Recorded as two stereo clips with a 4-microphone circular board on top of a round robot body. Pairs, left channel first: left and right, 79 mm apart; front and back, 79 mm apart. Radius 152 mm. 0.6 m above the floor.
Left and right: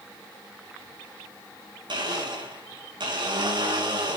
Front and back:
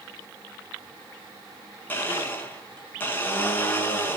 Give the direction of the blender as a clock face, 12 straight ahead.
2 o'clock.